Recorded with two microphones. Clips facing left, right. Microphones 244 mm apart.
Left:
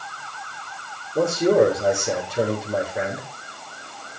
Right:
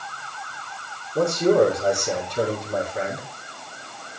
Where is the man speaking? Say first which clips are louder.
Left 1 dB; 5° left (ahead or behind), 5 m.